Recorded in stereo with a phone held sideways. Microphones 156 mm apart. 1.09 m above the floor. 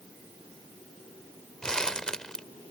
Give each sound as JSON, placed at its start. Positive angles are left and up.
{"t": 1.6, "sound": "crumpling", "side_deg": 5}